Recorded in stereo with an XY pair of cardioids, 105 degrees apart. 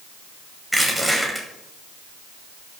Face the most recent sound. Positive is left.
turn(degrees=-10)